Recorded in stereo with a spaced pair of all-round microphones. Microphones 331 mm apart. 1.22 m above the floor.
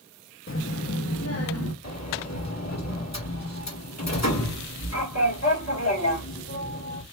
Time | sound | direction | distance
0.5 | a child speaking | 40° left (ahead or behind) | 0.6 m
1.8 | a sliding door | 50° left (ahead or behind) | 1.5 m